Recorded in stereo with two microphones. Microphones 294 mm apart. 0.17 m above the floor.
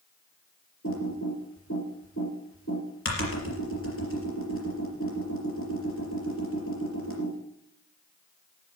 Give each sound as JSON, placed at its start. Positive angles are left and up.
{"t": 0.8, "sound": "typing on a keyboard", "side_deg": 50, "distance_m": 4.0}